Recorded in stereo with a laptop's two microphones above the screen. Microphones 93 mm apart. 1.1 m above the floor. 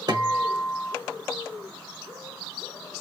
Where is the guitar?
50° right (ahead or behind), 1.2 m.